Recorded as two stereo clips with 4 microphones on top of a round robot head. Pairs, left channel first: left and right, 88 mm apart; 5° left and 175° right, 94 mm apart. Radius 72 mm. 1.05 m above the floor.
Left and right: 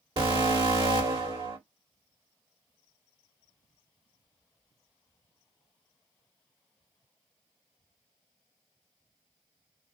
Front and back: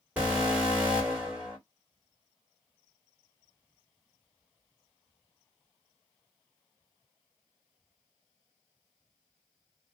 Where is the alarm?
105° right, 1.7 m.